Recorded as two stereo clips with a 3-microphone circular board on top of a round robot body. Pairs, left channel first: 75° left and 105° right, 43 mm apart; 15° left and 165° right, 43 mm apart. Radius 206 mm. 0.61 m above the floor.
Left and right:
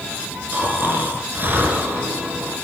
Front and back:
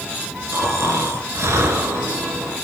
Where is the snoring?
155° right, 3 m.